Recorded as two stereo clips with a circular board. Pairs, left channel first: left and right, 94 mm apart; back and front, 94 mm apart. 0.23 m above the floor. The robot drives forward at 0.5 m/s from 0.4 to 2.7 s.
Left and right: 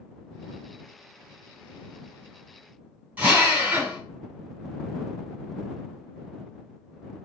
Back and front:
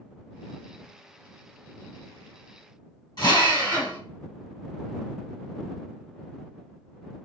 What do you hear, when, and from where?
3.2 s a drill: 160° right, 1.5 m